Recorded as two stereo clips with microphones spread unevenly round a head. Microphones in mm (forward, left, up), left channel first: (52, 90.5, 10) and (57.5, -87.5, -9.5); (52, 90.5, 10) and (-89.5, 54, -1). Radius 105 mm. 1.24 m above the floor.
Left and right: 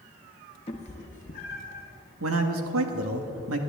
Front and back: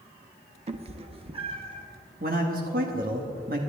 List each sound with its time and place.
0.7 s a cat meowing: 150° left, 0.8 m; by 1.9 s 140° left, 1.9 m
2.2 s a man speaking: 110° right, 1.5 m